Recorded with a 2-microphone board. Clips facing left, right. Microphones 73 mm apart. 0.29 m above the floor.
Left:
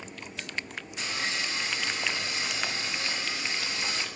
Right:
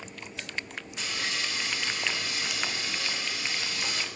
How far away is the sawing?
About 1.2 m.